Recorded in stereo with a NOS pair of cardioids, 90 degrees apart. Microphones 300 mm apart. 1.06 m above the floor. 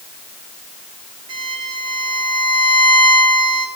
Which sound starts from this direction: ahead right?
A violin, at 1.3 s.